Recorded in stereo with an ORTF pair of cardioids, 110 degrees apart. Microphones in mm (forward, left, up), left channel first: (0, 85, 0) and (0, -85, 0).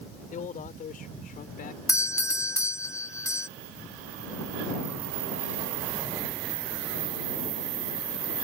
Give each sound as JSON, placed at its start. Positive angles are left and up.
{"t": 0.3, "sound": "a man speaking", "azimuth_deg": 50}
{"t": 1.9, "sound": "a doorbell", "azimuth_deg": 20}